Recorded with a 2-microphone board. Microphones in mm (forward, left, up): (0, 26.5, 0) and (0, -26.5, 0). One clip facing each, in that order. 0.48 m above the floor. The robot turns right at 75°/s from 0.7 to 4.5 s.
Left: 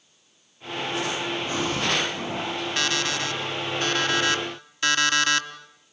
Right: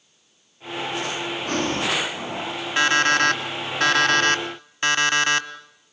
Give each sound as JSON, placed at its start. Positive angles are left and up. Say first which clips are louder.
{"t": 1.5, "sound": "breathing", "louder": "right 3 dB", "azimuth_deg": -60, "distance_m": 2.5}
{"t": 2.8, "sound": "an alarm clock", "louder": "right 11 dB", "azimuth_deg": -160, "distance_m": 1.3}